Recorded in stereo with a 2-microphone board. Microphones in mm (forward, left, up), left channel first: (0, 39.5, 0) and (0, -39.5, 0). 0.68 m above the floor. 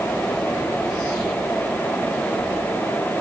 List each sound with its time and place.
Only background noise.